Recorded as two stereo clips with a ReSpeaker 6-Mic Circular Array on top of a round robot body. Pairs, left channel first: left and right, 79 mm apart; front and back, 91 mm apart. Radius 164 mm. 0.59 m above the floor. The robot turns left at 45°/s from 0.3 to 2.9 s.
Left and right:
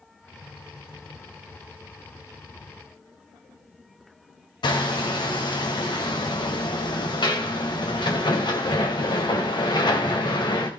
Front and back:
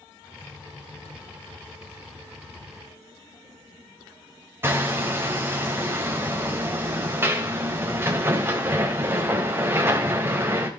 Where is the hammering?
115° left, 2.5 m.